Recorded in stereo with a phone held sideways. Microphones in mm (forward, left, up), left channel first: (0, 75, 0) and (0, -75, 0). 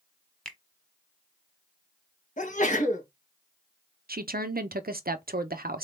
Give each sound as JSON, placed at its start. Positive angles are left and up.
{"t": 0.5, "sound": "a finger snap", "side_deg": 5, "distance_m": 0.9}
{"t": 2.4, "sound": "a sneeze", "side_deg": 55, "distance_m": 1.4}
{"t": 4.1, "sound": "a woman speaking", "side_deg": -80, "distance_m": 0.6}